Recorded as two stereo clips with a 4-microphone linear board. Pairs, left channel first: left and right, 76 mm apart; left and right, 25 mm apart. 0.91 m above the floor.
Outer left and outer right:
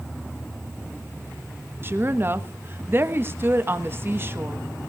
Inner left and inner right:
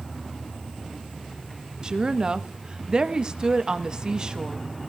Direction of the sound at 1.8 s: 30° right (ahead or behind).